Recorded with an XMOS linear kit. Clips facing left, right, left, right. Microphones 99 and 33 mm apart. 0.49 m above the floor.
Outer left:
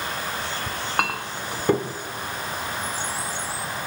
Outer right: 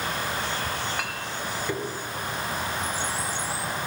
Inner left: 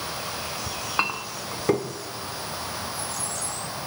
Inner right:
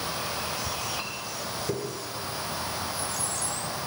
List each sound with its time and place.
0.7 s a clink: 55° left (ahead or behind), 0.8 m